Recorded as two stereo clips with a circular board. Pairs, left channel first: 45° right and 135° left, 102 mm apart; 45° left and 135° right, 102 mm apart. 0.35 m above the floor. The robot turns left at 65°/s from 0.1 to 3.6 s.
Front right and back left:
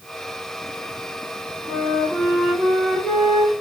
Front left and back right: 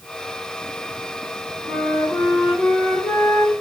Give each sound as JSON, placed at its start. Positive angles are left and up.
{"t": 1.7, "sound": "a flute", "azimuth_deg": 105, "distance_m": 1.3}